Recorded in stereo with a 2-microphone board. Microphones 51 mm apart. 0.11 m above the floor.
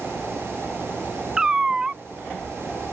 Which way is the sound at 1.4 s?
15° right (ahead or behind).